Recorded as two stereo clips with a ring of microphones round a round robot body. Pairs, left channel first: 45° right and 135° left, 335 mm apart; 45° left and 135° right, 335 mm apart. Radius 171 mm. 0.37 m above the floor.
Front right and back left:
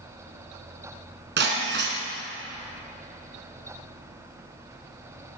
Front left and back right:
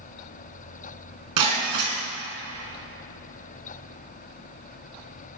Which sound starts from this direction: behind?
Breaking glass, at 1.4 s.